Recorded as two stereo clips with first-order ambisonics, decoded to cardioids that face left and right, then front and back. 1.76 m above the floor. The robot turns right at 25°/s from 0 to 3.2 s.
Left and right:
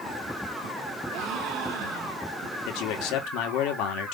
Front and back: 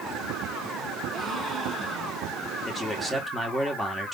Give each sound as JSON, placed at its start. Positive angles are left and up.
{"t": 1.1, "sound": "a gasp", "azimuth_deg": -115, "distance_m": 2.0}
{"t": 2.6, "sound": "a man speaking", "azimuth_deg": 85, "distance_m": 1.4}